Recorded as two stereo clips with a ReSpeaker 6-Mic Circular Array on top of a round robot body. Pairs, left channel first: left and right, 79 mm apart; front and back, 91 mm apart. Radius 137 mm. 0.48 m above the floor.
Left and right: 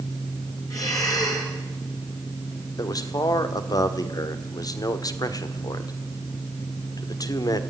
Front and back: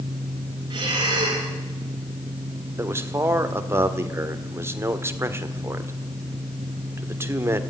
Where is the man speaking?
120° left, 1.8 m.